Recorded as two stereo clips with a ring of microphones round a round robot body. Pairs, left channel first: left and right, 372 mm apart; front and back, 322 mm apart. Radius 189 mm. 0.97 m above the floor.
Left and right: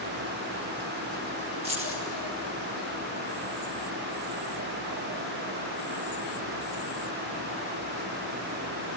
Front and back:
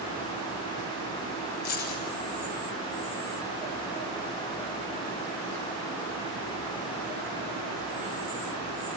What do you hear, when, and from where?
1.6 s keys jangling: 15° right, 4.5 m